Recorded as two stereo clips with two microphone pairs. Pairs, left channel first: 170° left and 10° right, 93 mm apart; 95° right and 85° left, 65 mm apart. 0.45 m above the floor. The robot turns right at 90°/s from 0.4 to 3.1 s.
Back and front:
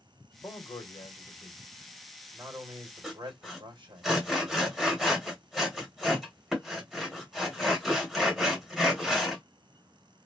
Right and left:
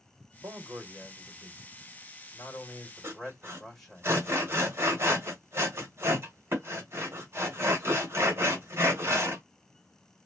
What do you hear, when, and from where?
0.4 s a man speaking: 110° left, 1.3 m; by 4.0 s 10° right, 1.3 m
3.0 s sawing: 70° left, 1.4 m; by 9.4 s 75° left, 1.4 m